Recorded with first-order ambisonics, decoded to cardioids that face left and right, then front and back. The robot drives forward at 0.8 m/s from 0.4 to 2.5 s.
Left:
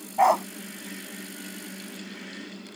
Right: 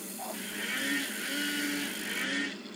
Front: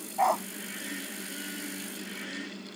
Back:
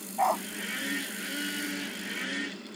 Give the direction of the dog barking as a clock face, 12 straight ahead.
9 o'clock.